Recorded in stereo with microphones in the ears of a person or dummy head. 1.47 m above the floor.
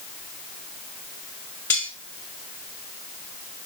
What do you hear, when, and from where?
1.7 s cutlery clinking: 10° left (ahead or behind), 1.2 m